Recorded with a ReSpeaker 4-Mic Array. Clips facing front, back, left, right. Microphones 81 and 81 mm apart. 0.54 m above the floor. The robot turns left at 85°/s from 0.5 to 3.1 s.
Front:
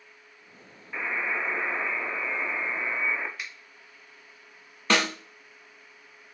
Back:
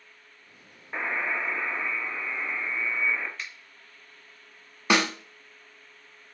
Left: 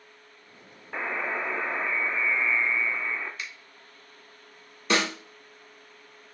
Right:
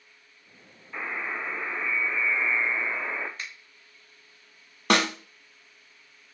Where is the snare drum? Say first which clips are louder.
Back 1 dB, right 3 dB; 105° right, 0.8 m.